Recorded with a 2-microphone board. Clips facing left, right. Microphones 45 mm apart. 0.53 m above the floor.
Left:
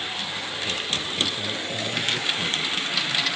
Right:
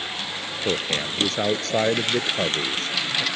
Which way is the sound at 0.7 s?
75° right (ahead or behind).